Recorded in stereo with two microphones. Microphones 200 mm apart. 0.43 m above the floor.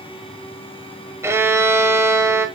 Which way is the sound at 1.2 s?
15° right (ahead or behind).